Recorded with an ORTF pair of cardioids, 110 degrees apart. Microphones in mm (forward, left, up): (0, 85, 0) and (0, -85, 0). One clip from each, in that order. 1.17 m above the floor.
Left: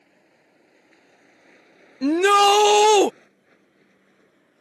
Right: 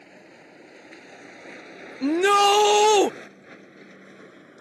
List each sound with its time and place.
0.0 s a vehicle: 60° right; by 4.6 s 70° right
2.0 s a shout: 10° left